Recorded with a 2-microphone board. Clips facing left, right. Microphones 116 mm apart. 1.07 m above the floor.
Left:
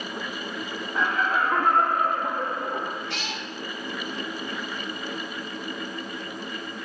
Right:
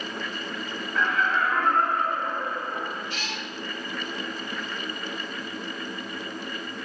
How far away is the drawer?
I don't hear a drawer.